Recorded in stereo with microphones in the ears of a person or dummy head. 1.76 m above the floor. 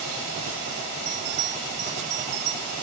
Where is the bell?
75° right (ahead or behind), 4 m.